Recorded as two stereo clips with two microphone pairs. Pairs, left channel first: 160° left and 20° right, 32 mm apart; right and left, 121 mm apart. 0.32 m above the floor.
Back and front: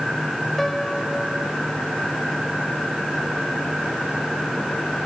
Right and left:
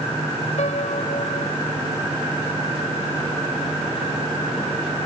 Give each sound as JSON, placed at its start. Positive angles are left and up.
{"t": 0.6, "sound": "a piano", "azimuth_deg": -115}